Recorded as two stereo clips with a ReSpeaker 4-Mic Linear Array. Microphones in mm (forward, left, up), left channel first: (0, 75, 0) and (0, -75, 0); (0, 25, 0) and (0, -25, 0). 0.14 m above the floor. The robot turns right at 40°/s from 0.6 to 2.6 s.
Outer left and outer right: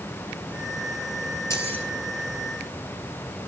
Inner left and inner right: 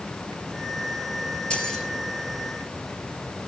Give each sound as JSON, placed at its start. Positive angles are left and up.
{"t": 1.5, "sound": "keys jangling", "side_deg": 20, "distance_m": 2.0}